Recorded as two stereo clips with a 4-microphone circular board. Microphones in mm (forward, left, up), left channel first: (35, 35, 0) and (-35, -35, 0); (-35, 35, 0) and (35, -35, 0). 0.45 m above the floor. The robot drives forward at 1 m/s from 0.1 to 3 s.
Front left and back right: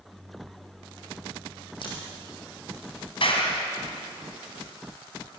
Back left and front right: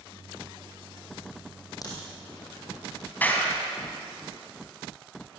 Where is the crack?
80° left, 8 m.